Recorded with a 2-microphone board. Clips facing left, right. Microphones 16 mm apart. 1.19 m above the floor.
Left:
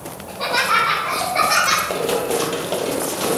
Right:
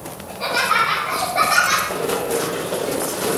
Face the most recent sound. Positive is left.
turn(degrees=25)  # may be behind; listen again after turning